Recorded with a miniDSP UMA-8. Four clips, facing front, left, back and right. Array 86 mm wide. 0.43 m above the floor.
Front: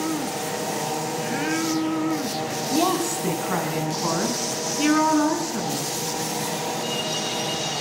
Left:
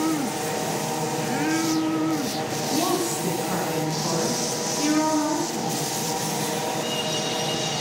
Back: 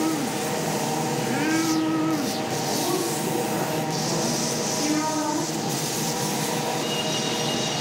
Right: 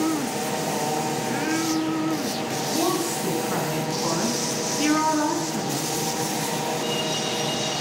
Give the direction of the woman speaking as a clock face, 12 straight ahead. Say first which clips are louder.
Even, front 6 dB; 12 o'clock.